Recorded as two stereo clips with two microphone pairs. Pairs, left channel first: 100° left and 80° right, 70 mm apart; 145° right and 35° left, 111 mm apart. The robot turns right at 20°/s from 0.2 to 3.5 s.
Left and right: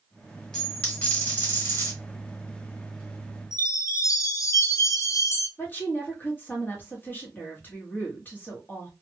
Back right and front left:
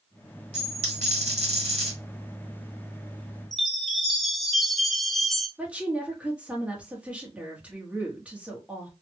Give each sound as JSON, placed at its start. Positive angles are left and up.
{"t": 0.5, "sound": "a dropped coin", "azimuth_deg": 20, "distance_m": 1.5}
{"t": 3.5, "sound": "a chime", "azimuth_deg": 125, "distance_m": 0.6}
{"t": 5.6, "sound": "a woman speaking", "azimuth_deg": 100, "distance_m": 1.1}